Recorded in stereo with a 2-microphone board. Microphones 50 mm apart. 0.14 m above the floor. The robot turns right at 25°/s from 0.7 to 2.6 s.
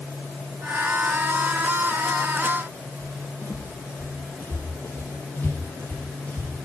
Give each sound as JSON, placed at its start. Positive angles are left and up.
{"t": 3.0, "sound": "footsteps", "side_deg": 55, "distance_m": 9.0}